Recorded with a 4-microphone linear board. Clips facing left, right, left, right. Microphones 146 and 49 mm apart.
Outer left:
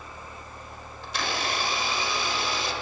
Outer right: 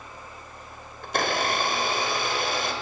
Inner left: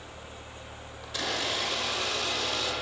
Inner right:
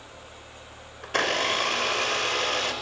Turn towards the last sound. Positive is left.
turn(degrees=-55)  # may be behind; listen again after turning